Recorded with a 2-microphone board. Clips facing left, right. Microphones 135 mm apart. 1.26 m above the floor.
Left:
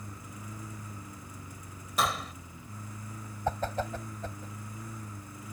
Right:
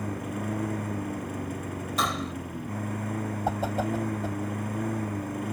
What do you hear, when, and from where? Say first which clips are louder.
0.0 s a lawn mower: right 14 dB; 70° right (ahead or behind)
2.0 s a gunshot: even; centre (ahead or behind)
3.5 s a whoosh: right 3 dB; 10° right (ahead or behind)